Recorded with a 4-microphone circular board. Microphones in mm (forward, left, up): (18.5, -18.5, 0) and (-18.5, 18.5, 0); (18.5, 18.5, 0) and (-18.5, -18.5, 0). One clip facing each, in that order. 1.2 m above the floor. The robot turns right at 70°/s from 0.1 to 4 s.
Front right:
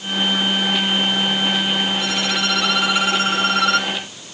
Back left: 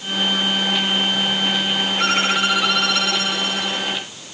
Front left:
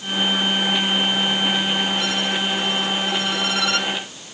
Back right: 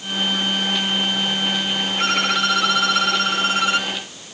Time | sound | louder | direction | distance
2.0 | a violin | back left 3 dB, back right 3 dB | 175° left | ?